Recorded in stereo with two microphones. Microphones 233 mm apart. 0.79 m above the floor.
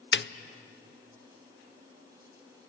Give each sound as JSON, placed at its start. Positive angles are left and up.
{"t": 0.1, "sound": "a snare drum", "side_deg": 55, "distance_m": 0.7}